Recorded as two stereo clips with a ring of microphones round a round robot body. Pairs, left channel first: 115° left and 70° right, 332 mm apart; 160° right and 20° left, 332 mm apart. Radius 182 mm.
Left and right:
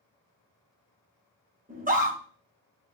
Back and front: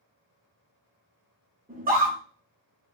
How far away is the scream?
About 1.6 m.